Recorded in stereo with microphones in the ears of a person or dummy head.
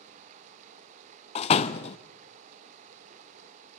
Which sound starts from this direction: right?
Running water, at 0.0 s.